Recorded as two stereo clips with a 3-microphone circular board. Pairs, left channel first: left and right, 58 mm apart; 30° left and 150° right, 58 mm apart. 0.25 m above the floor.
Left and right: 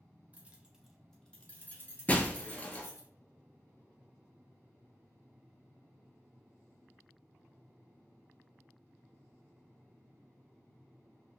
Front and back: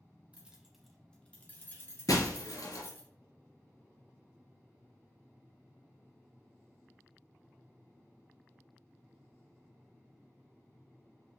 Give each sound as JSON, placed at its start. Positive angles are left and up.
{"t": 0.3, "sound": "keys jangling", "azimuth_deg": -110, "distance_m": 0.8}
{"t": 2.1, "sound": "breaking glass", "azimuth_deg": 25, "distance_m": 0.7}